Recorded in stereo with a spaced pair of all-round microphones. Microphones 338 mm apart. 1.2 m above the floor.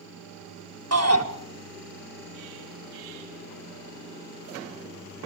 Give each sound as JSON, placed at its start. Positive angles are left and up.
{"t": 0.9, "sound": "a shout", "side_deg": -50, "distance_m": 1.6}